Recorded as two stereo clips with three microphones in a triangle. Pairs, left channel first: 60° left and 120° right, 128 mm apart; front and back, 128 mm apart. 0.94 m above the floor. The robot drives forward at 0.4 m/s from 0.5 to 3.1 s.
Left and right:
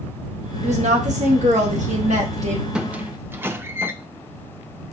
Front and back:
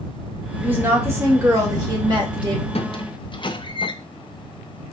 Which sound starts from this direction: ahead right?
A squeak, at 2.8 s.